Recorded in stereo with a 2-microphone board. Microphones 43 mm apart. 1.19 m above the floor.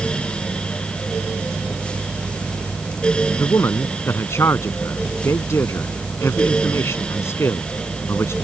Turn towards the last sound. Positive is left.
turn(degrees=90)